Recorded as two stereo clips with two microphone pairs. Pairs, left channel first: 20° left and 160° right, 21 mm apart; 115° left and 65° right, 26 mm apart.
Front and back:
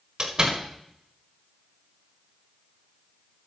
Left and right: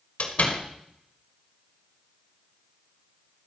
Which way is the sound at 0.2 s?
145° left.